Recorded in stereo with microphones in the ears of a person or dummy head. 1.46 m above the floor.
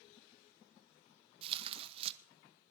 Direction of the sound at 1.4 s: 35° right (ahead or behind).